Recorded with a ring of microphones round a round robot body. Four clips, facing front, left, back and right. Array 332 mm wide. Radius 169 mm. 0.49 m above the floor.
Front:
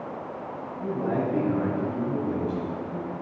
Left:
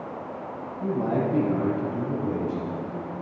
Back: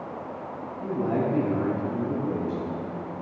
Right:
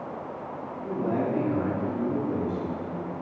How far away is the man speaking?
About 3.5 m.